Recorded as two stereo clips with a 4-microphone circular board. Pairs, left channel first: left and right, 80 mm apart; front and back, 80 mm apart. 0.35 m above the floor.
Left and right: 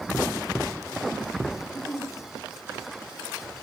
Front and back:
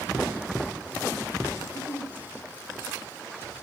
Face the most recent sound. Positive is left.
turn(degrees=55)